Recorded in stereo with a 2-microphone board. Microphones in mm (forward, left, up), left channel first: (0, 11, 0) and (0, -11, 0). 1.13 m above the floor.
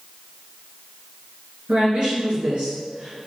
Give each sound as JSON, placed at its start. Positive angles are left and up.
{"t": 1.7, "sound": "a woman speaking", "side_deg": -80, "distance_m": 2.0}